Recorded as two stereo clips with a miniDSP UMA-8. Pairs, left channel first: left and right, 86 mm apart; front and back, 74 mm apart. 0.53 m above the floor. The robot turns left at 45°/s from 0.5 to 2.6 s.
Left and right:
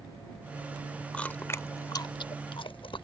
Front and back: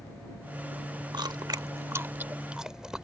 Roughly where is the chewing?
Behind.